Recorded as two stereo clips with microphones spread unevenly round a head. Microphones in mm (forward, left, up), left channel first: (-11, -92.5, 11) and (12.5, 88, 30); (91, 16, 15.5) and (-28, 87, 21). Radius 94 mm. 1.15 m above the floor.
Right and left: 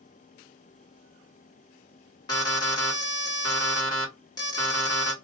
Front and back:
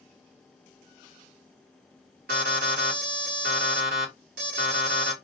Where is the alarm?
165° right, 1.1 m.